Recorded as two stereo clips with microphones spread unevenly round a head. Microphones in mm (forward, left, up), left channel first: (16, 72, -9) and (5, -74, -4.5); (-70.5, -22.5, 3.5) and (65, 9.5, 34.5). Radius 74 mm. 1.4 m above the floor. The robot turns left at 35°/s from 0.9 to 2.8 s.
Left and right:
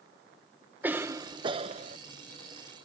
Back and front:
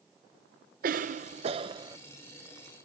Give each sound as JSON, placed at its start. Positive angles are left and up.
{"t": 0.8, "sound": "a cough", "azimuth_deg": -15}